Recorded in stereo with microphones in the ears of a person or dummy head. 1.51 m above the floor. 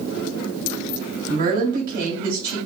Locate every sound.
1.3 s a woman speaking: 45° right (ahead or behind), 1.8 m